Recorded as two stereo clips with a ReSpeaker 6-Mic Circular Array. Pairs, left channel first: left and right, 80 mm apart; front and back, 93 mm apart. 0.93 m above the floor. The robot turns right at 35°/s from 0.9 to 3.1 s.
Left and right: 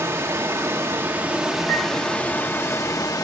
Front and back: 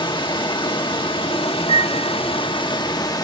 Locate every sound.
0.0 s running water: 30° right, 1.4 m; by 3.2 s 45° left, 1.4 m
1.7 s a piano: 20° left, 1.4 m; by 2.1 s 35° left, 1.4 m